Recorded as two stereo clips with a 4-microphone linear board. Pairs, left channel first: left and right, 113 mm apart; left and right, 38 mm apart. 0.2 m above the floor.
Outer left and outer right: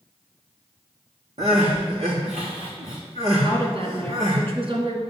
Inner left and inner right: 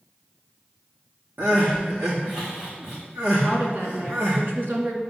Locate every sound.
1.4 s crying: 65° right (ahead or behind), 4.5 m
3.4 s a woman speaking: 55° right (ahead or behind), 2.5 m